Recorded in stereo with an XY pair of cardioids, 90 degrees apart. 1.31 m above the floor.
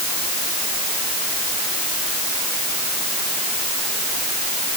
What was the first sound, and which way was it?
Only background noise.